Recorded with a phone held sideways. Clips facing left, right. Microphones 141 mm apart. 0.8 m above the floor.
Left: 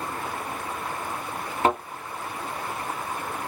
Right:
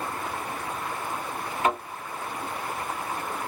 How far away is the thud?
About 2.5 m.